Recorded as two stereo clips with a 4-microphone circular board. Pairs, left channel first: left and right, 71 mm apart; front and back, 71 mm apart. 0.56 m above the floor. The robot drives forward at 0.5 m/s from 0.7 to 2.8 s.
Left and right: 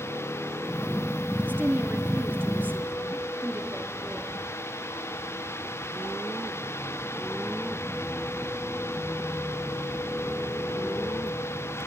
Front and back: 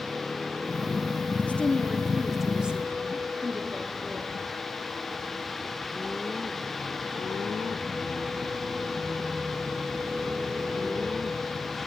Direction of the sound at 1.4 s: 50° right.